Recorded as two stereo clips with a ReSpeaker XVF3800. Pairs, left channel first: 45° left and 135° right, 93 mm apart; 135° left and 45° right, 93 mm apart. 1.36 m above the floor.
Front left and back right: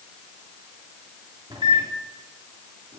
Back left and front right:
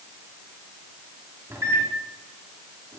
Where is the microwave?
110° right, 3 m.